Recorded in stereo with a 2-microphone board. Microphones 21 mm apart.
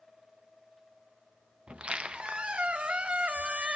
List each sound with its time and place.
1.7 s a squeak: 70° right (ahead or behind), 0.6 m